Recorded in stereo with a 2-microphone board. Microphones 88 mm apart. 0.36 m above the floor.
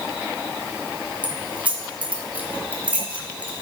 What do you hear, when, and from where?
1.2 s keys jangling: 15° right (ahead or behind), 1.4 m